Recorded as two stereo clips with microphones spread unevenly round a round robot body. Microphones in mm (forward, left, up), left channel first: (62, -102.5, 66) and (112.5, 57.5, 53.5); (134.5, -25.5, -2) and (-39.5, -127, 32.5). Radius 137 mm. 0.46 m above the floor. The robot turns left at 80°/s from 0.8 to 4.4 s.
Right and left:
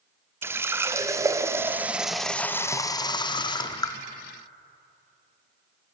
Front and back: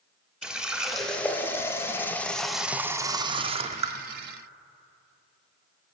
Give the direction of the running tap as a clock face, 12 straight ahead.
9 o'clock.